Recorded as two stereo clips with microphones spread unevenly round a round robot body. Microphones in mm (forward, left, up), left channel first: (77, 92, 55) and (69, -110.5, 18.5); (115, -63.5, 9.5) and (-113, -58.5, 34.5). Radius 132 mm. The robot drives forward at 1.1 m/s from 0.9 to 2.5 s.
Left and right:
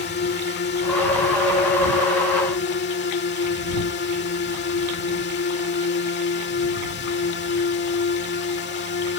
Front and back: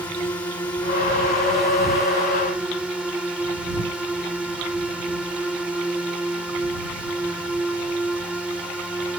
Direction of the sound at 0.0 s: 75° left.